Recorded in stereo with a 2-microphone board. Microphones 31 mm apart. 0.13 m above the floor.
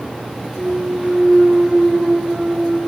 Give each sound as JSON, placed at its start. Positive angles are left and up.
{"t": 0.6, "sound": "a clunk", "side_deg": -30, "distance_m": 0.6}